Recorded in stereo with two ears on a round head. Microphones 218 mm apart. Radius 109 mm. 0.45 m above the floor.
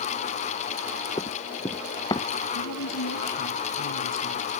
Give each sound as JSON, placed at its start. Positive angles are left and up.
{"t": 1.2, "sound": "running footsteps", "side_deg": 15}
{"t": 2.5, "sound": "a woman speaking", "side_deg": 85}